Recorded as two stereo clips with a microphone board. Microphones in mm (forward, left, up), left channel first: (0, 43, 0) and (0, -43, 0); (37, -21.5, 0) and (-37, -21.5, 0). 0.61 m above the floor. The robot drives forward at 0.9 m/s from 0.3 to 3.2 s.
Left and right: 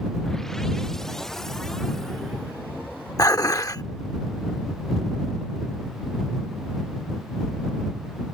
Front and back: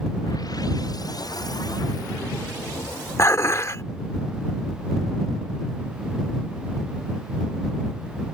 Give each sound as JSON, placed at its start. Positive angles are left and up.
{"t": 3.2, "sound": "dishes clattering", "azimuth_deg": 45}